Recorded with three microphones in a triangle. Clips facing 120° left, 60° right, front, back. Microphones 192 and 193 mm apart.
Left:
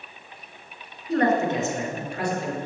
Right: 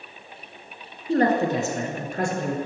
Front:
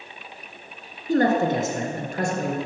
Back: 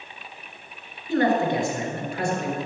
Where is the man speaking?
15° right, 1.5 m; by 2.6 s 35° right, 2.0 m.